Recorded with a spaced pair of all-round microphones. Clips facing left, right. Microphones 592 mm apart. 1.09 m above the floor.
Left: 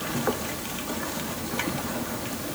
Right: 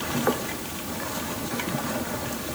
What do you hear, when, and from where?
Only background noise.